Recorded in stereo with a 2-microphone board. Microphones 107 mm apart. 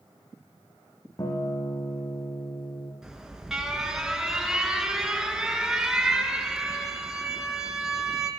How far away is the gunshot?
No gunshot in this recording.